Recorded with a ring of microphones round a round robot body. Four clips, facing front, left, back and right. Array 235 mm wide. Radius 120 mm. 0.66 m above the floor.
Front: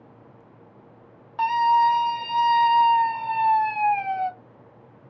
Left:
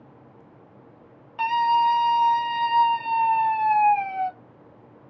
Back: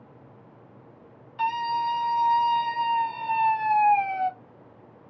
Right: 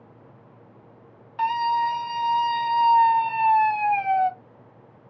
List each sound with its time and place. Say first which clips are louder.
1.4 s a scream: left 2 dB, front 7 dB; 25° left, 1.4 m; by 4.3 s 105° right, 1.1 m